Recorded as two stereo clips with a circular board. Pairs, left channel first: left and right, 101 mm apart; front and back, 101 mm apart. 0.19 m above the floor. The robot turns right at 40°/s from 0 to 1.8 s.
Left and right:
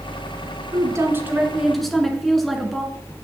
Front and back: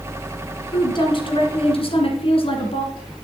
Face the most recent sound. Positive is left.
turn(degrees=0)